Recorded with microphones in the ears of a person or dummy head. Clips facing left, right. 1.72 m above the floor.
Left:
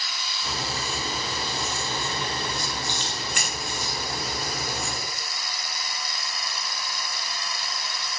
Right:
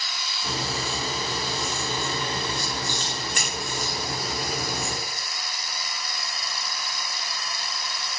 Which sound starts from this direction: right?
A crack, at 0.4 s.